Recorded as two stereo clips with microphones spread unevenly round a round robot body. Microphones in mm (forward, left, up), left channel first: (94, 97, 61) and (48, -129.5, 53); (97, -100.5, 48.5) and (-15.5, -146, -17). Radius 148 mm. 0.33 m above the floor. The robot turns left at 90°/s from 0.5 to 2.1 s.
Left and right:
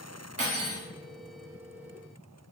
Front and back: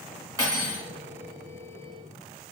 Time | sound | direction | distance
0.4 | cutlery clinking | 150° right | 1.0 m